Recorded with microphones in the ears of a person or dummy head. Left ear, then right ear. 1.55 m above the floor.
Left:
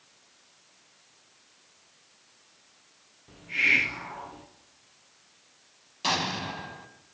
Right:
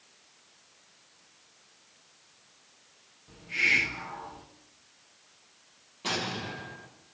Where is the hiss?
20° left (ahead or behind), 2 m.